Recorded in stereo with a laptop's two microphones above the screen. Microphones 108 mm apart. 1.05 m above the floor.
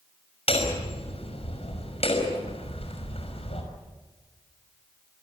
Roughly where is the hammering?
Left.